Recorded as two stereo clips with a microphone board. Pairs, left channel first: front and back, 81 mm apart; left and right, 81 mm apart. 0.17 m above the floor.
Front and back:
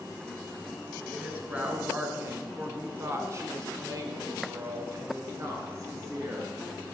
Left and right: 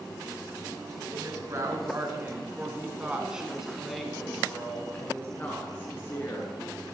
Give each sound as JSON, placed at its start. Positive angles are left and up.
{"t": 1.1, "sound": "a woman speaking", "azimuth_deg": -110, "distance_m": 1.9}